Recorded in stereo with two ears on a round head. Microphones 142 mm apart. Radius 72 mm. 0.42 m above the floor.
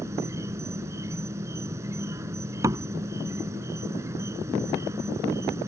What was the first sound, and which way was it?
An insect, 20° right (ahead or behind).